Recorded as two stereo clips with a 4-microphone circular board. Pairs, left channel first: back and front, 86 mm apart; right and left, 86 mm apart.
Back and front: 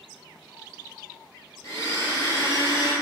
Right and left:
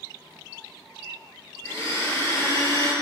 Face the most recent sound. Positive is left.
turn(degrees=-135)